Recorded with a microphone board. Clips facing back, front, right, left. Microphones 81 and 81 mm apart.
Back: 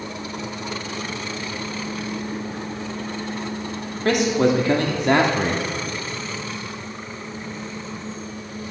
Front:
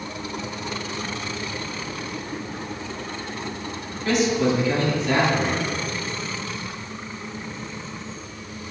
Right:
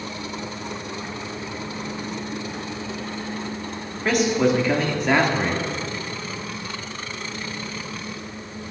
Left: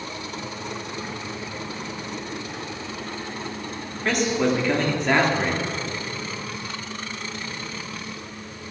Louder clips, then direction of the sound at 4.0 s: Back 2 dB, right 3 dB; 175° right.